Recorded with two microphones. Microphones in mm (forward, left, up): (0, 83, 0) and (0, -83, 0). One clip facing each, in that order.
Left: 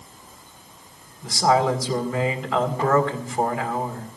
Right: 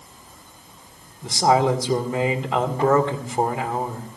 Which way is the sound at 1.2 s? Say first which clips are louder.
Right 1 dB; 25° right (ahead or behind).